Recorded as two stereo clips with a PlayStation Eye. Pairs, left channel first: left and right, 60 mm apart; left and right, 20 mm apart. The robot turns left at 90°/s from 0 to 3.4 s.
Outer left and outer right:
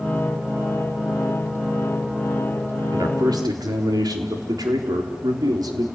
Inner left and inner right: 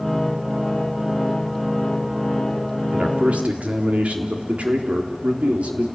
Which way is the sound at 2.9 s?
55° right.